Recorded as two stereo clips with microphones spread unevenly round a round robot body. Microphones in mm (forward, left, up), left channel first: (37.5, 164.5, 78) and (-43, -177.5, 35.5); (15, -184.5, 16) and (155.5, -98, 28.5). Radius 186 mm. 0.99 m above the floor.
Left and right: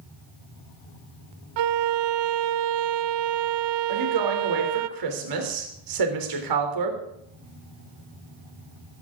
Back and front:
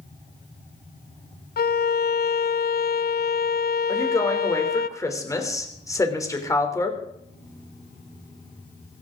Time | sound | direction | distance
1.6 | a violin | 115° right | 0.8 m
3.9 | a woman speaking | 75° right | 3 m